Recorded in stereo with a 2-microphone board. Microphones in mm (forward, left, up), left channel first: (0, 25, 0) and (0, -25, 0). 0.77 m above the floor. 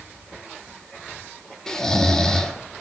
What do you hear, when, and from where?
1.7 s snoring: 10° left (ahead or behind), 1.4 m